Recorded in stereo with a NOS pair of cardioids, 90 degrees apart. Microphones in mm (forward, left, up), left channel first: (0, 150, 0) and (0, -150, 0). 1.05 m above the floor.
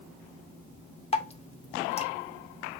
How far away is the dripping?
About 0.8 m.